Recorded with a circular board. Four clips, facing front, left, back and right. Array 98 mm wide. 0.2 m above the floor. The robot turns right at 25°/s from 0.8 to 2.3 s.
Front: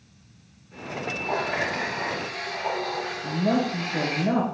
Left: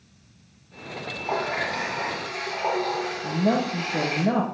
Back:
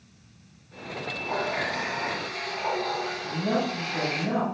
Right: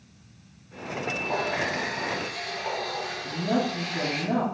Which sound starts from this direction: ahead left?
A woman speaking, at 3.2 s.